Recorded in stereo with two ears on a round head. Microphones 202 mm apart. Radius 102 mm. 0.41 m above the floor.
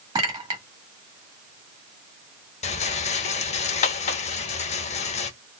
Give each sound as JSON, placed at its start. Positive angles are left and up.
{"t": 0.1, "sound": "a clink", "side_deg": -20, "distance_m": 1.2}
{"t": 2.6, "sound": "a rattle", "side_deg": 30, "distance_m": 0.6}